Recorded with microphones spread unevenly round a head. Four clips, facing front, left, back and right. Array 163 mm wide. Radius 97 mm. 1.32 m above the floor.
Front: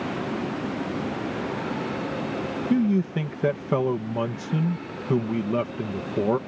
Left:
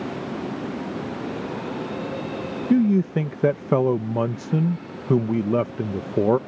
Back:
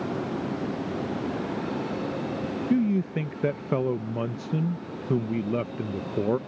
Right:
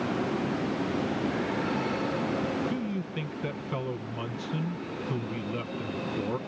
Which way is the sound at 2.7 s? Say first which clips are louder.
Left 13 dB, front 2 dB; 90° left.